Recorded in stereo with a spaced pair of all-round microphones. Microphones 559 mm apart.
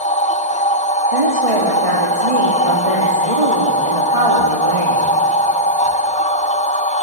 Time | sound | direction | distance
0.0 | a machine running | 15° left (ahead or behind) | 0.8 m
1.1 | a woman speaking | 75° right (ahead or behind) | 3 m